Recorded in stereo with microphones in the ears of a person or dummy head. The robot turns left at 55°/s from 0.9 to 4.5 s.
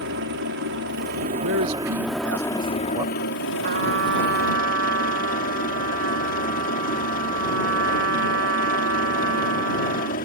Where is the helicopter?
110° right; by 10.3 s 50° left.